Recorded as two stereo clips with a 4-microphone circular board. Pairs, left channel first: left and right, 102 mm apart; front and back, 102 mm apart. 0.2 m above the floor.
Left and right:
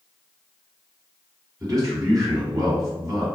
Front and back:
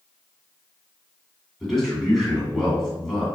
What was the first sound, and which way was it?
A man speaking, 90° right.